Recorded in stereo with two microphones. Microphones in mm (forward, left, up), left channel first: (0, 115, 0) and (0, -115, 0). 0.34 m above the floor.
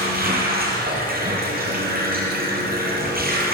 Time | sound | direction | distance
0.0 | running water | 45° right (ahead or behind) | 7.5 m